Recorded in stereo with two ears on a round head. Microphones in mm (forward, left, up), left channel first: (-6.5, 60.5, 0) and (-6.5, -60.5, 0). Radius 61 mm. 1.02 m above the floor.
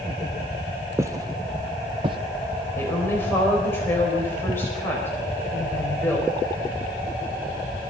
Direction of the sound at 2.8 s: 15° left (ahead or behind).